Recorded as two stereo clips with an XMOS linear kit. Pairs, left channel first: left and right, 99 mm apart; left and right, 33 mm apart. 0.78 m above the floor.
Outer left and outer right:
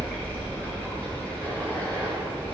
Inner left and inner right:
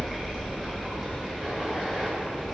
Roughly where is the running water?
Centre.